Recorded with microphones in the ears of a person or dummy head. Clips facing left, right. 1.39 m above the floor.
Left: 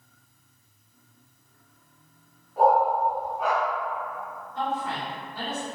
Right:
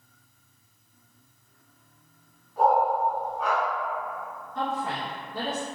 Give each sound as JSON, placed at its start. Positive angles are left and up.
{"t": 2.6, "sound": "a dog barking", "side_deg": 15, "distance_m": 1.4}
{"t": 4.5, "sound": "a woman speaking", "side_deg": -60, "distance_m": 0.9}